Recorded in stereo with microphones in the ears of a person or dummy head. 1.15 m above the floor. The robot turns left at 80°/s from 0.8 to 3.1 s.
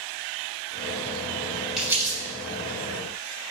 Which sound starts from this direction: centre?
Crumpling, at 1.8 s.